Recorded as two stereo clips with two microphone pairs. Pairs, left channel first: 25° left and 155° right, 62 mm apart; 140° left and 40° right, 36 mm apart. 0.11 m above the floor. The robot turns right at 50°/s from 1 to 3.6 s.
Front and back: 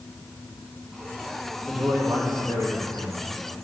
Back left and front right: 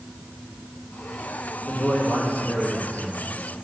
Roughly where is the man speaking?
Behind left.